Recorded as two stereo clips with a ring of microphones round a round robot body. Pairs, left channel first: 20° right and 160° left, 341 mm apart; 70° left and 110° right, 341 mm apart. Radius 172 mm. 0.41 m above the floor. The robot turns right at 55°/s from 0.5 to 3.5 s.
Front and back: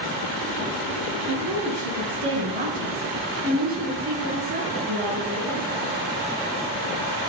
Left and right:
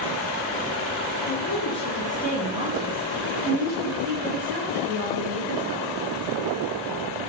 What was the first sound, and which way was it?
A woman speaking, 100° left.